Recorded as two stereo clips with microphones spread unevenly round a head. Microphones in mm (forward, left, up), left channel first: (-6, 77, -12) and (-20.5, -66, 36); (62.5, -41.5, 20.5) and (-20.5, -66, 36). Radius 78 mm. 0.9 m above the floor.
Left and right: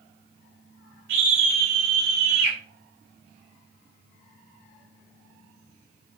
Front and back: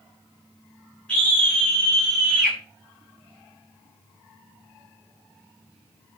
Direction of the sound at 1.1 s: 60° right.